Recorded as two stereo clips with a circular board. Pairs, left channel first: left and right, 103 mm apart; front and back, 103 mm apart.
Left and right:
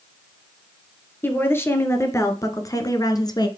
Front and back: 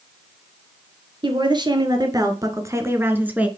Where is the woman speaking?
155° left, 2.5 m; by 3.5 s 110° left, 1.9 m.